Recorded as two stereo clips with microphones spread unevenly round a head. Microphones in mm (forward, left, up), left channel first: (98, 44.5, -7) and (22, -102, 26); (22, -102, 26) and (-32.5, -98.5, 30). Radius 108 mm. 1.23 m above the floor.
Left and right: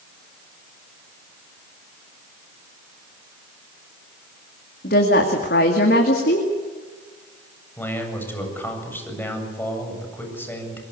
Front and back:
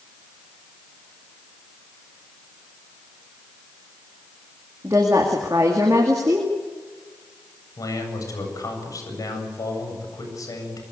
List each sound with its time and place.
4.8 s a woman speaking: 110° left, 2 m
7.8 s a man speaking: 15° right, 7.5 m